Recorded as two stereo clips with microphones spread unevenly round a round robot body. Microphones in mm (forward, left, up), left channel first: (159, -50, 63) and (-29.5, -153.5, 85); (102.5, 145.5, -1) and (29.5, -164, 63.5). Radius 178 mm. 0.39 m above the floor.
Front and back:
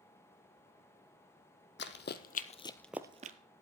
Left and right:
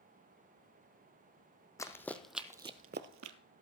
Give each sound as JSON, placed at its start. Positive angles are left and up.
{"t": 1.8, "sound": "running footsteps", "azimuth_deg": -10, "distance_m": 1.0}